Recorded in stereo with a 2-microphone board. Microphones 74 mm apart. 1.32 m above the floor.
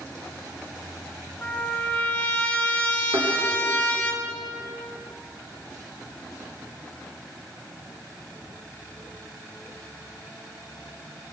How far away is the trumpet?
About 2.5 m.